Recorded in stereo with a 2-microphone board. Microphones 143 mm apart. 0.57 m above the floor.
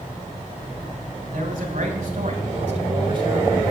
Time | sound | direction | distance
1.3 | a man speaking | 75° right (ahead or behind) | 4 m